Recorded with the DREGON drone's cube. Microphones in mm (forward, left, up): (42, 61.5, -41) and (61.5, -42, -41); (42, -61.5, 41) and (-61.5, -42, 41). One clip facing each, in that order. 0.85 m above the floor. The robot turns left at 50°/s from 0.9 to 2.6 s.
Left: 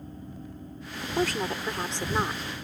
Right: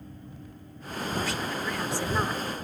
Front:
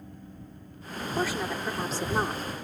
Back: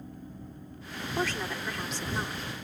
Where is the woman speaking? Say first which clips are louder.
Left 4 dB, front 2 dB; 80° left; by 2.4 s 10° left.